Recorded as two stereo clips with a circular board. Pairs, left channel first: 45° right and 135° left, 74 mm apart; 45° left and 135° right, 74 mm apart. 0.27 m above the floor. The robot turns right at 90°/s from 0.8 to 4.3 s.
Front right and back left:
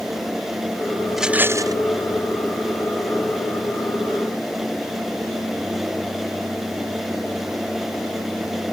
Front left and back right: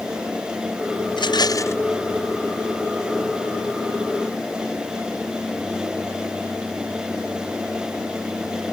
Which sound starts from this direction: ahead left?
A rattle, at 1.1 s.